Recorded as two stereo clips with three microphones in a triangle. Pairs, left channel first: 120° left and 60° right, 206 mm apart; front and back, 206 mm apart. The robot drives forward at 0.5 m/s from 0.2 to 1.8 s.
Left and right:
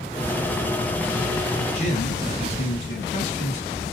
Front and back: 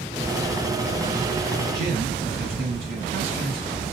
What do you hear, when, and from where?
1.7 s a man speaking: 165° left, 2.5 m